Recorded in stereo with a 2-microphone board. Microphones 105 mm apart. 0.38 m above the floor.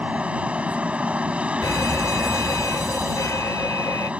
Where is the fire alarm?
30° left (ahead or behind).